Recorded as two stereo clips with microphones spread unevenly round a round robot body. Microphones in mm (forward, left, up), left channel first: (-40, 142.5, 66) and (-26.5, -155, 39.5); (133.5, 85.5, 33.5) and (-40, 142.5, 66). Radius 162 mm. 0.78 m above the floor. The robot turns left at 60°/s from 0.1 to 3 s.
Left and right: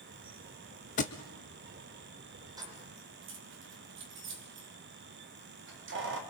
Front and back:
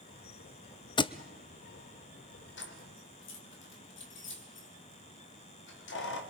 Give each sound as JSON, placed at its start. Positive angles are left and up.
{"t": 1.0, "sound": "a thud", "azimuth_deg": 50, "distance_m": 0.5}
{"t": 2.6, "sound": "keys jangling", "azimuth_deg": -10, "distance_m": 2.0}